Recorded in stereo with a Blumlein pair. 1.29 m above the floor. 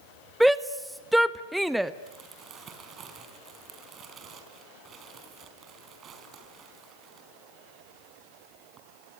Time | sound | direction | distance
0.4 | a shout | 5° right | 0.7 m
2.1 | crumpling | 25° right | 4 m